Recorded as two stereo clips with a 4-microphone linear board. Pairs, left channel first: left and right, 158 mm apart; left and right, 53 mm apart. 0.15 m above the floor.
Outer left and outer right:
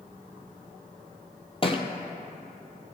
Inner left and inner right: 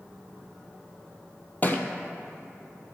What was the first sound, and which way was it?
A thud, 35° left (ahead or behind).